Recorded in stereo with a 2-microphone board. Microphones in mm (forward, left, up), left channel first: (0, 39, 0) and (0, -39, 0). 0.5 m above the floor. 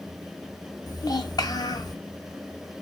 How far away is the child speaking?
About 1.6 m.